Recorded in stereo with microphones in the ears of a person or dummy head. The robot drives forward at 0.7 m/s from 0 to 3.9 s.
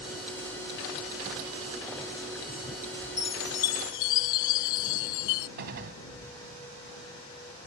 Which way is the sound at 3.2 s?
15° left (ahead or behind).